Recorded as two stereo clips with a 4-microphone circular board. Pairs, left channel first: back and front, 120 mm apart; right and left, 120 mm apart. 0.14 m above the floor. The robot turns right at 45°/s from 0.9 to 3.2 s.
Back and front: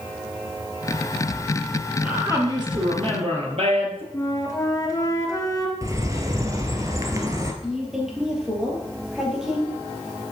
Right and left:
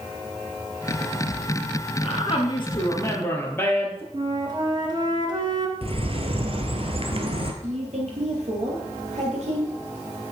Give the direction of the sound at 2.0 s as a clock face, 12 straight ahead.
2 o'clock.